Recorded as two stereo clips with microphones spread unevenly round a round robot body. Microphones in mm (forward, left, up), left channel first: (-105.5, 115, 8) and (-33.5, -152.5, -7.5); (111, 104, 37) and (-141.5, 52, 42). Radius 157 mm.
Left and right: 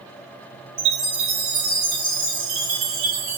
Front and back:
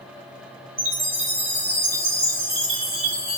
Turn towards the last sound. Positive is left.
turn(degrees=-85)